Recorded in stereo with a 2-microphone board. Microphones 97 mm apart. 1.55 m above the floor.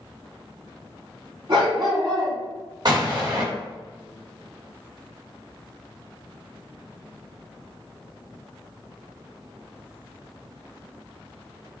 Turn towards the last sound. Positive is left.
turn(degrees=-45)  # may be behind; listen again after turning